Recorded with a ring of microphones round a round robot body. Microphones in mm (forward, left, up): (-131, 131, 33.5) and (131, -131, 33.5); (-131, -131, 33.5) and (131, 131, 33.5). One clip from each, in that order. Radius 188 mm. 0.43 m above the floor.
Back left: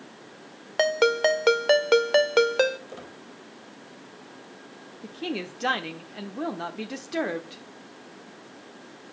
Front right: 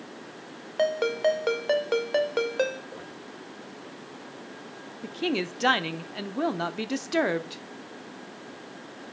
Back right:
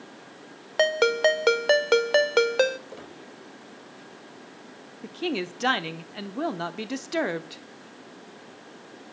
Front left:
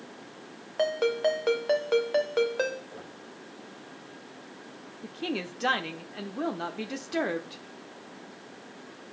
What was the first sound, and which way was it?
A ringtone, 175° right.